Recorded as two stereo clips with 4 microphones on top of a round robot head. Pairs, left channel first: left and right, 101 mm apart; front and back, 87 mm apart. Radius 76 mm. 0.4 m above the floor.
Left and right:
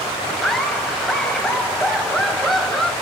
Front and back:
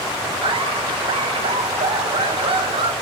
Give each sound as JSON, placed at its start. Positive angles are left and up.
{"t": 0.4, "sound": "laughter", "azimuth_deg": 175, "distance_m": 2.5}